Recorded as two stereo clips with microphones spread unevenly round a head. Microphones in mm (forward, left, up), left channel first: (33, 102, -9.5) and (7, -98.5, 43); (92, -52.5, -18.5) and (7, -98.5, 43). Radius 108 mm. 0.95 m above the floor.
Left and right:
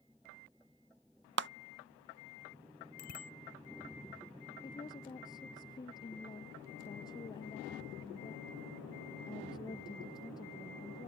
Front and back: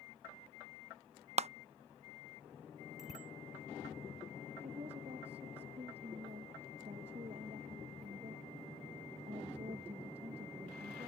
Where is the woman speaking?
155° left.